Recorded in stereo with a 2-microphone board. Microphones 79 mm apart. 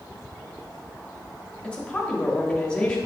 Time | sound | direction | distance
1.6 | a woman speaking | 10° left (ahead or behind) | 1.5 m